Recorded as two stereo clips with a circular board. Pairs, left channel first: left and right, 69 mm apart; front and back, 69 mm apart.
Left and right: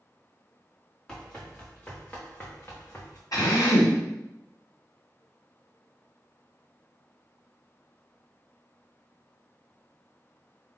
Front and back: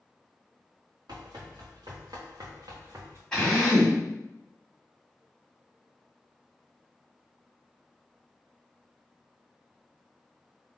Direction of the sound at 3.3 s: 75° left.